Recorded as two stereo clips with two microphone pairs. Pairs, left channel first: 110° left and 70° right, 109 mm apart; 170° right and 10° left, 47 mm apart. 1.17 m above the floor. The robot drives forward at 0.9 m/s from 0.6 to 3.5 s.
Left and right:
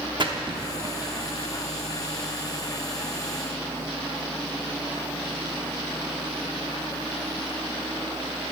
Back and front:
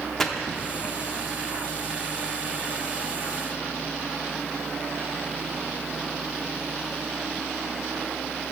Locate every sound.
0.2 s a splash: 90° right, 0.9 m; by 1.0 s 115° right, 0.9 m